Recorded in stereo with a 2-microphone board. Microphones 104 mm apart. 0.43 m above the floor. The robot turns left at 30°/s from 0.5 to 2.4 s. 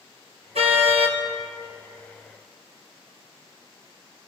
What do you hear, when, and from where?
0.6 s a car horn: 80° right, 4.5 m; by 1.2 s 65° right (ahead or behind), 4.5 m